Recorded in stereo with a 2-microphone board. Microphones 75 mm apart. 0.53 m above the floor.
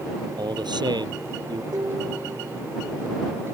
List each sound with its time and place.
0.4 s a man speaking: 75° right (ahead or behind); by 1.6 s 70° right (ahead or behind)
1.7 s dishes clattering: 60° right (ahead or behind)